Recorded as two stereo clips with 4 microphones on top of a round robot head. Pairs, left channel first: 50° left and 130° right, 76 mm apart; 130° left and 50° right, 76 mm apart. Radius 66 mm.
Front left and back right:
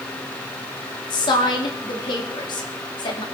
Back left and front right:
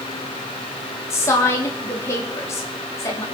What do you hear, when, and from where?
1.1 s a woman speaking: 75° left, 4 m